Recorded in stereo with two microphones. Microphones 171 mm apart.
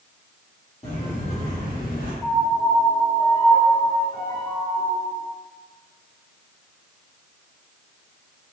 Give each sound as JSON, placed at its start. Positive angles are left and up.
{"t": 0.8, "sound": "footsteps", "side_deg": 40, "distance_m": 1.9}
{"t": 2.2, "sound": "a piano", "side_deg": 25, "distance_m": 1.2}